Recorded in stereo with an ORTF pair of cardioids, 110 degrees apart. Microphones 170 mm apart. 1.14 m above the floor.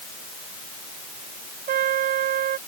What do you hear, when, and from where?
1.7 s a trumpet: 60° right